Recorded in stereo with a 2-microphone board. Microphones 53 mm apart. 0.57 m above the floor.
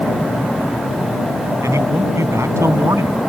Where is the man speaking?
70° right (ahead or behind).